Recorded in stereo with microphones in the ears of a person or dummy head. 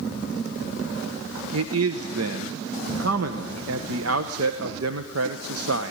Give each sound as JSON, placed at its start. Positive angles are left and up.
{"t": 1.5, "sound": "a man speaking", "side_deg": -75, "distance_m": 1.2}